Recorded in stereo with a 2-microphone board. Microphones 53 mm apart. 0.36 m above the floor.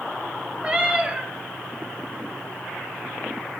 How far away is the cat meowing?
About 1.2 m.